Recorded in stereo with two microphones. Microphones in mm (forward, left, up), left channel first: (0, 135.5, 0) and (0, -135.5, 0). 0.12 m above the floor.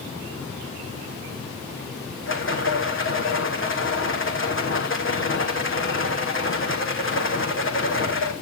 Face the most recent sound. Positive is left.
turn(degrees=45)  # may be behind; listen again after turning